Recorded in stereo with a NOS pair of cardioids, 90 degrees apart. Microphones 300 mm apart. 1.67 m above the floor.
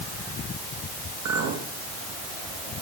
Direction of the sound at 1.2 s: 70° right.